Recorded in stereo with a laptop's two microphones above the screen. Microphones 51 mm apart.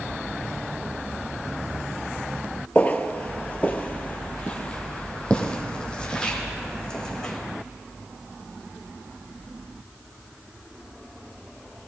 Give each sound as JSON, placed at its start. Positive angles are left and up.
{"t": 2.8, "sound": "footsteps", "side_deg": 30, "distance_m": 1.1}